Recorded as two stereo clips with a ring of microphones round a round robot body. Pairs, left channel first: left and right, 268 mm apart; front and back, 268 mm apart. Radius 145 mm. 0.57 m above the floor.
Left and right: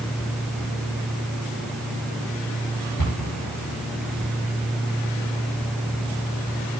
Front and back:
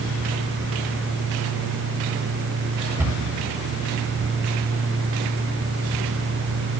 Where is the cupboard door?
100° left, 8 m.